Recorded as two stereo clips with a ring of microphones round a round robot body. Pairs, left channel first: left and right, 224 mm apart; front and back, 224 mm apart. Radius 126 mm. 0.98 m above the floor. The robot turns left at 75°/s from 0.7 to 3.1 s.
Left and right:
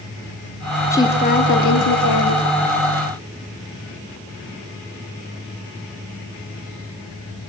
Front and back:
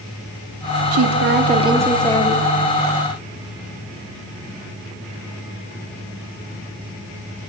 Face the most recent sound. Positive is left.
turn(degrees=5)